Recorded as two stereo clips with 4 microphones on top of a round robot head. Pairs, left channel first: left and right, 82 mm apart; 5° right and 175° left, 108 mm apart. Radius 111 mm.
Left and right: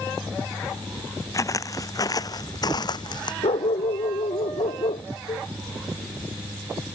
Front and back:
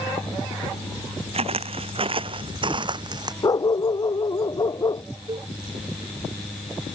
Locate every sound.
1.3 s footsteps: 140° left; by 3.3 s 120° left
3.4 s a dog barking: 55° left
5.3 s a cowbell: 125° left